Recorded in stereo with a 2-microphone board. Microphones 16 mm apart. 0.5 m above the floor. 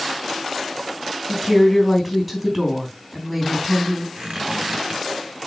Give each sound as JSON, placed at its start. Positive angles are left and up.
{"t": 1.3, "sound": "a woman speaking", "side_deg": 0, "distance_m": 3.5}
{"t": 4.2, "sound": "a squeak", "side_deg": -50, "distance_m": 4.0}